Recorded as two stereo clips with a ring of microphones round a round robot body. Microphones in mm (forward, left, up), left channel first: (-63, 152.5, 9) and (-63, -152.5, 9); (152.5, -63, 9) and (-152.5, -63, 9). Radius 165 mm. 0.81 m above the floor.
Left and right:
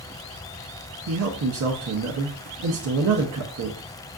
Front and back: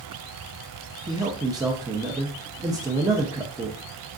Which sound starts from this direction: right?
A man speaking, at 1.1 s.